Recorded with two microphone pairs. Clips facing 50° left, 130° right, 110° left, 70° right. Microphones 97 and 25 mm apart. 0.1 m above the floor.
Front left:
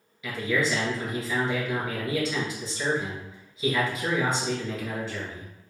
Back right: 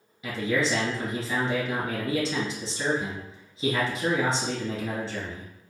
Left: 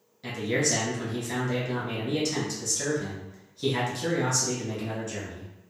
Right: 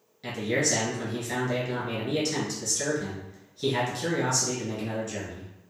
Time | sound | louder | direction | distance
0.2 | a man speaking | back right 1 dB, even | 155° right | 1.2 m